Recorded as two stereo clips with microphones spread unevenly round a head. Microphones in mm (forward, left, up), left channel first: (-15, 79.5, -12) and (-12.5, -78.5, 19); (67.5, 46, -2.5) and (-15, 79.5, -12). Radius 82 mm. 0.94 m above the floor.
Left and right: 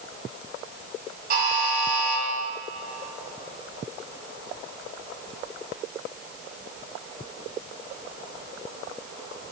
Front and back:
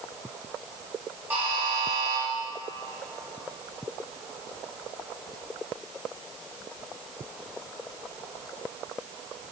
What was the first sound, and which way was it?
A buzzer, 120° right.